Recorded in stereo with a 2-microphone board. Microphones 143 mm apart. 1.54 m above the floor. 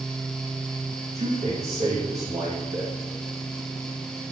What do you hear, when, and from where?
1.1 s a man speaking: 50° right (ahead or behind), 2 m